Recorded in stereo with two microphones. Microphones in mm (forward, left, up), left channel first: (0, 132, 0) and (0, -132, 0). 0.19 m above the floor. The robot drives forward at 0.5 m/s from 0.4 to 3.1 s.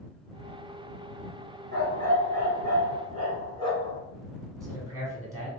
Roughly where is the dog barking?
Right.